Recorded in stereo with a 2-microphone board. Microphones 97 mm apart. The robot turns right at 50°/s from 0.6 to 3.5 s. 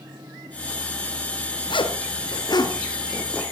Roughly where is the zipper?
Left.